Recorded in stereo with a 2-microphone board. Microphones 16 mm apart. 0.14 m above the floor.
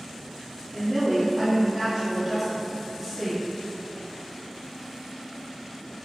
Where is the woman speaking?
40° right (ahead or behind), 1.7 m; by 3.5 s 10° left (ahead or behind), 1.6 m.